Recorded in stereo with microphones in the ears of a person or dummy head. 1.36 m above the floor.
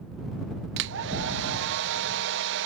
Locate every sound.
0.8 s a hair dryer: 65° right (ahead or behind)